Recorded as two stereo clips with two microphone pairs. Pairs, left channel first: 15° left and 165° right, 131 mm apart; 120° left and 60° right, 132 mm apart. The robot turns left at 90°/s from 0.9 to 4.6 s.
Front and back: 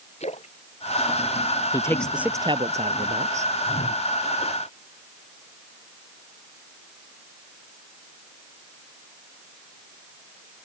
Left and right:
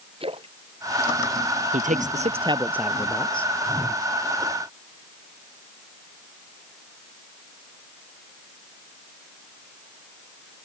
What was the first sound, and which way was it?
A splash, 15° right.